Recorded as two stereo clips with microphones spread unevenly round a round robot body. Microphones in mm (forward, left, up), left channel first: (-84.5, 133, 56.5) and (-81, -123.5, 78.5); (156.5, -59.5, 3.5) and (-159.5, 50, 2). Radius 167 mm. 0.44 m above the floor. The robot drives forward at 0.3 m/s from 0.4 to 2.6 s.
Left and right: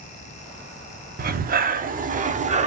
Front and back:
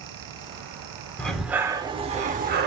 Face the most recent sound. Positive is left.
turn(degrees=-150)